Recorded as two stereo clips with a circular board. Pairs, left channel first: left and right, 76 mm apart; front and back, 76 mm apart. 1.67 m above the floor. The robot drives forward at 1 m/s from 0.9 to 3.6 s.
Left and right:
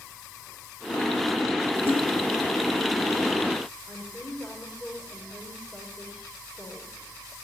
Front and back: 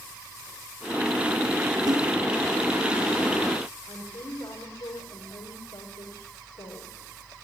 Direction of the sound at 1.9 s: 150° right.